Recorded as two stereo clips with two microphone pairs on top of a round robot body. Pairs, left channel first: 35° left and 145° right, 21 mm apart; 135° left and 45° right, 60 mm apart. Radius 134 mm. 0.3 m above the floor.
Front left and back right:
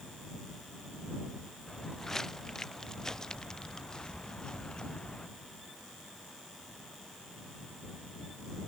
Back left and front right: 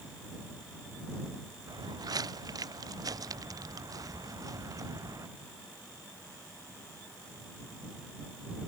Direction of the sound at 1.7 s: 40° right.